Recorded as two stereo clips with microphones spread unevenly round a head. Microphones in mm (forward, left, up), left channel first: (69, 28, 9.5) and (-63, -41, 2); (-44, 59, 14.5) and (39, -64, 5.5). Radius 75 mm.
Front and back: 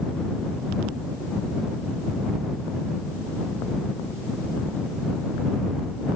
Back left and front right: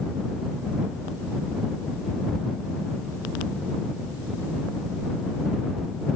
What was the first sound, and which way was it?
Only background noise.